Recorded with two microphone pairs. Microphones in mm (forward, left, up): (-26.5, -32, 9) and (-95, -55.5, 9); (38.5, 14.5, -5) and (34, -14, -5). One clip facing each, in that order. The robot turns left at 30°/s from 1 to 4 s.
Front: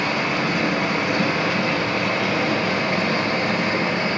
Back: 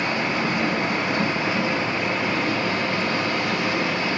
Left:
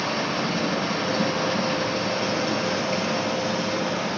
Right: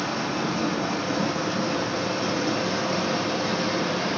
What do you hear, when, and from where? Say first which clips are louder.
0.0 s running water: front 2 dB, left 1 dB; 50° left, 5 m; by 4.2 s 40° right, 5 m